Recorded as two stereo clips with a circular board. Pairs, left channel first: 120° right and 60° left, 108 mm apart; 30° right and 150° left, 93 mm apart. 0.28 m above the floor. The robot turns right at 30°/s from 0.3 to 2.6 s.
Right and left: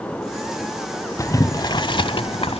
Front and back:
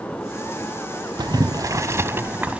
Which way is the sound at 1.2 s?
Straight behind.